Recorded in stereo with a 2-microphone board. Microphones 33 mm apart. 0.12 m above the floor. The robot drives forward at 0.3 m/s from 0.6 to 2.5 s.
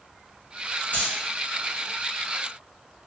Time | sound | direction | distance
0.9 | keys jangling | 55° left (ahead or behind) | 1.6 m